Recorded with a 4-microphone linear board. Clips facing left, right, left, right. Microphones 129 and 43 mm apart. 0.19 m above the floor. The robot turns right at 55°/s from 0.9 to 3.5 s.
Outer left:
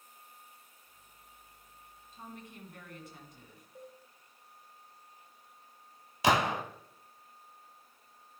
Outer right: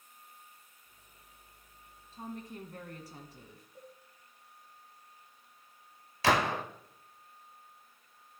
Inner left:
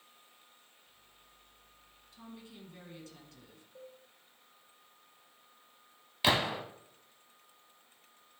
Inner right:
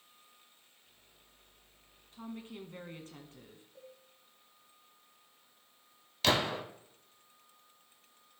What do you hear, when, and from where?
2.1 s a woman speaking: 125° right, 1.7 m; by 3.6 s 45° right, 1.7 m
3.8 s a cowbell: 25° left (ahead or behind), 5 m
6.2 s a gunshot: 20° left (ahead or behind), 1.1 m